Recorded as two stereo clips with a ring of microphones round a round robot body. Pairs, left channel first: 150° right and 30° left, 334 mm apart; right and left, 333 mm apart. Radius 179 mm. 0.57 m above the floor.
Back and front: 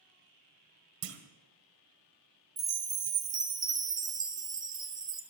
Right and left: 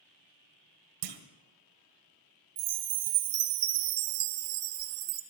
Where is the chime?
110° left, 1.3 m.